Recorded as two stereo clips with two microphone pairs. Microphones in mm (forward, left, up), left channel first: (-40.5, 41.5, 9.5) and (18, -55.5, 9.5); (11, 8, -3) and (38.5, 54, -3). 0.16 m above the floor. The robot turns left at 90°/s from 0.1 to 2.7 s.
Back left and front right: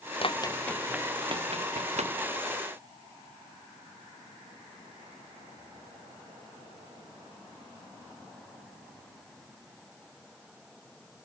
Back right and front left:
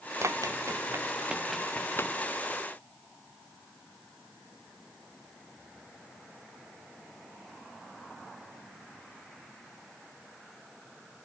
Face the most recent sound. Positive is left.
turn(degrees=-140)